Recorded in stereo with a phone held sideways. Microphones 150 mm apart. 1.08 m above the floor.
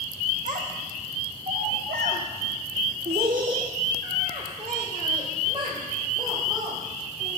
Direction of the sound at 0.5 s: 60° right (ahead or behind).